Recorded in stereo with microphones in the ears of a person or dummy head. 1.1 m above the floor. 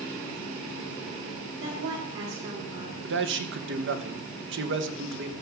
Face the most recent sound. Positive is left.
turn(degrees=-55)  # may be behind; listen again after turning